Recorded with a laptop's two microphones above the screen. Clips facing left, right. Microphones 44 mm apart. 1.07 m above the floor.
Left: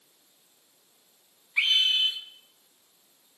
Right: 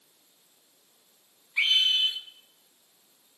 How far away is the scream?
About 7 m.